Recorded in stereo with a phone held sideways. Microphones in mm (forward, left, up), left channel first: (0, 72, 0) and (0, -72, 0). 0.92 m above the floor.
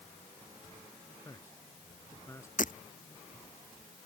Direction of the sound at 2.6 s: 65° left (ahead or behind).